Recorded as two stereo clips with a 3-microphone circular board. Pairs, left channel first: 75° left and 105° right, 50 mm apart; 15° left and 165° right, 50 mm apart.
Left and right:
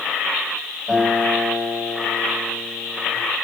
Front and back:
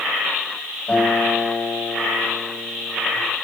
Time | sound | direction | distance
0.9 | a guitar | 50° right | 7 m